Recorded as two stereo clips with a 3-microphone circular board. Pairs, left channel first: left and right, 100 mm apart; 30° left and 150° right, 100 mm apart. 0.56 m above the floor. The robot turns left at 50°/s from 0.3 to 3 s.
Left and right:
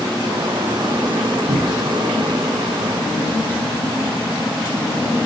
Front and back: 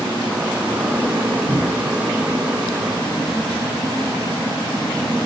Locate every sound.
1.5 s a cupboard door: 80° right, 2 m; by 1.9 s 100° right, 2 m